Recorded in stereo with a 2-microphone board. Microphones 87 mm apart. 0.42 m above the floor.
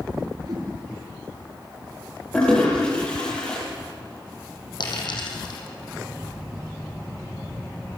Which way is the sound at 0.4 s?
50° right (ahead or behind).